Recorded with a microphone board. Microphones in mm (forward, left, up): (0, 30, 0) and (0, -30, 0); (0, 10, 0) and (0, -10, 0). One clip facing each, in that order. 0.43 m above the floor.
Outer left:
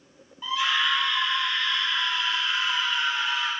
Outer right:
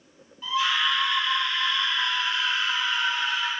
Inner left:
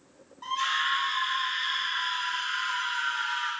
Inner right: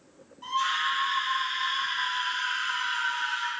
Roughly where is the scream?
Centre.